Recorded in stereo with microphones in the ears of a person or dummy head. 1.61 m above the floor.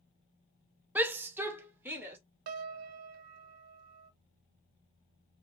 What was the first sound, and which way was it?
A shout, 10° right (ahead or behind).